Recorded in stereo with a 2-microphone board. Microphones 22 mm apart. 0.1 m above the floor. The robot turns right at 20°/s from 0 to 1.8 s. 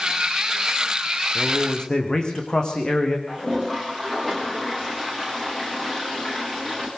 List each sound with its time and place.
1.4 s a man speaking: 20° left (ahead or behind), 6.5 m; by 3.2 s 30° left (ahead or behind), 6.5 m
3.3 s a toilet flushing: 5° left (ahead or behind), 9 m